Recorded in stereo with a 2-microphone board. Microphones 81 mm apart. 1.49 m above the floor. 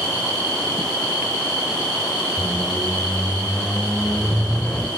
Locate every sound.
2.4 s a squeak: 10° left (ahead or behind), 1.4 m